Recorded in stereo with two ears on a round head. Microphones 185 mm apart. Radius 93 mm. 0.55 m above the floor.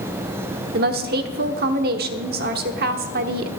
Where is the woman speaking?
50° right (ahead or behind), 1.2 m.